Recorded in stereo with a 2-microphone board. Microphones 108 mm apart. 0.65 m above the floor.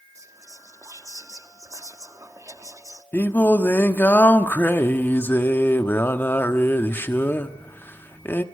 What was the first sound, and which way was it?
Whispering, 30° right (ahead or behind).